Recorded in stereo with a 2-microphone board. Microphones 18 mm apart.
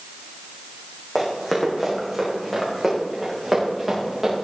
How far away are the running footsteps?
About 4.5 m.